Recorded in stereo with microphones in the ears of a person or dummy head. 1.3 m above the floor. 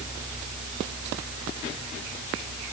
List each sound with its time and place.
Only background noise.